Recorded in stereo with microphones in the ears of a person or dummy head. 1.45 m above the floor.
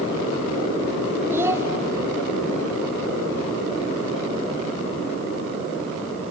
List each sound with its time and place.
1.3 s a child speaking: 15° right (ahead or behind), 1.0 m